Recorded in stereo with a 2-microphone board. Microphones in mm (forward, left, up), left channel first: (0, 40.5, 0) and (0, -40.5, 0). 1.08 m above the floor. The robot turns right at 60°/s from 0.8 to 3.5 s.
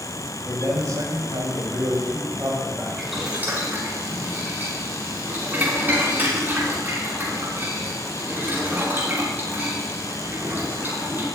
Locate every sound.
0.5 s a man speaking: 135° right, 6 m; by 2.9 s 10° right, 6 m
3.0 s boiling: 5° left (ahead or behind), 6 m; by 11.3 s 25° right (ahead or behind), 6 m